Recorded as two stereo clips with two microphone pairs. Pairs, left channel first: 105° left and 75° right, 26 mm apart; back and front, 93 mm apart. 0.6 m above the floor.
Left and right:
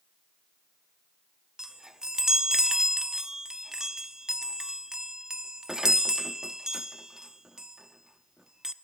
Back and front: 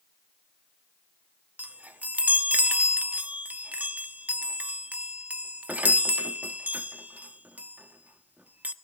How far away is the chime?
About 0.8 m.